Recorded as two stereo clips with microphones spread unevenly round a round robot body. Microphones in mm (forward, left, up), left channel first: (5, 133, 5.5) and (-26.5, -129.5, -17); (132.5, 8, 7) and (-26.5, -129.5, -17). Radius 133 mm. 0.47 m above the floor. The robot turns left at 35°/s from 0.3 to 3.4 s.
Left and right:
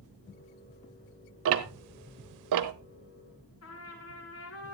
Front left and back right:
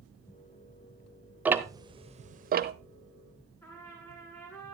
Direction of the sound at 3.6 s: 125° left.